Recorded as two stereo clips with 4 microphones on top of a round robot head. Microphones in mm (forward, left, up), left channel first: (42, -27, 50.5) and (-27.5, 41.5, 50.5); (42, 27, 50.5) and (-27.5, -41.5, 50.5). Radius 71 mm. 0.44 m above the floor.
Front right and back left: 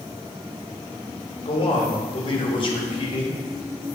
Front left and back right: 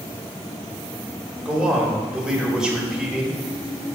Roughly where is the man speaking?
Ahead right.